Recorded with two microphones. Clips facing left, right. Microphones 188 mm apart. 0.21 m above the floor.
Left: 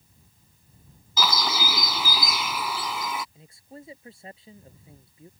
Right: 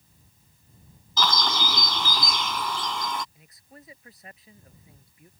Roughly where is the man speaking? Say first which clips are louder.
Left 6 dB; left.